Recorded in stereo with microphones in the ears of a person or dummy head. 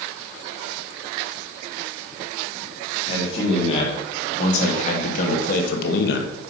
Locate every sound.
3.1 s a man speaking: 30° left (ahead or behind), 3 m; by 6.3 s 65° left (ahead or behind), 1.3 m